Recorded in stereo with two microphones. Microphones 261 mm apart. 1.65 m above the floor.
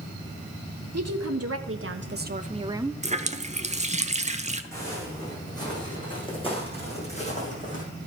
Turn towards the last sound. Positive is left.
turn(degrees=30)  # may be behind; listen again after turning